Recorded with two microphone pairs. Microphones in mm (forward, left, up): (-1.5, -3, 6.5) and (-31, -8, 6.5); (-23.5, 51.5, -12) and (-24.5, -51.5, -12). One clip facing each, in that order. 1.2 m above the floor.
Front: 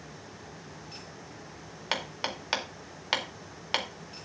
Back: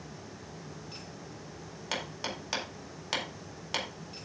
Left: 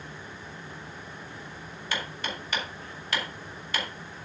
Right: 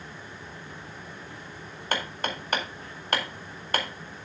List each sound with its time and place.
1.9 s hammering: 55° right, 2 m